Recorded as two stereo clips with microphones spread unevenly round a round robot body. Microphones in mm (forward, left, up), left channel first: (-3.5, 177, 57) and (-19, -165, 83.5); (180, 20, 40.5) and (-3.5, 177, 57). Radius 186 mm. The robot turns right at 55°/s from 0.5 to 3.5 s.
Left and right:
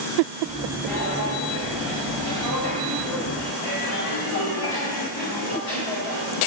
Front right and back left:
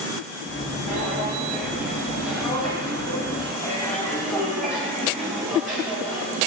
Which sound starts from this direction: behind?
Footsteps, at 0.9 s.